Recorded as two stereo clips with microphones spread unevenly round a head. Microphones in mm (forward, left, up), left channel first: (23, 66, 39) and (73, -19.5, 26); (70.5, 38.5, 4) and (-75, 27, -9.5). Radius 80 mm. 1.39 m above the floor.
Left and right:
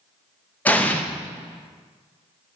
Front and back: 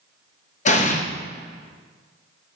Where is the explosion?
45° left, 1.0 m.